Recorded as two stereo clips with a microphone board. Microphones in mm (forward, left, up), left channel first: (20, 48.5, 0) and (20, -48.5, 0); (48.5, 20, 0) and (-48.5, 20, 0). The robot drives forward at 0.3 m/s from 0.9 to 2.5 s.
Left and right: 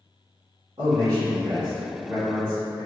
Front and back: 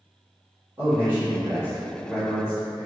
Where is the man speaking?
120° right, 1.9 m; by 2.9 s 135° right, 2 m.